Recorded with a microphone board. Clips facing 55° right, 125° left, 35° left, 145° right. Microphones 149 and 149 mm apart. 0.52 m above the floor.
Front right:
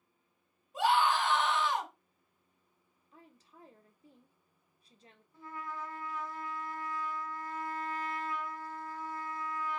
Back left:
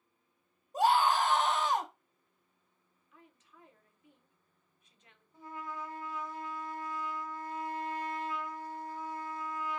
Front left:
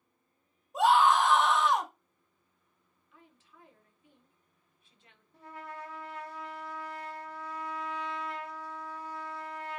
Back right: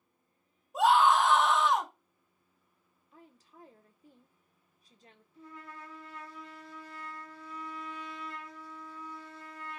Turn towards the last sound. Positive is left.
turn(degrees=55)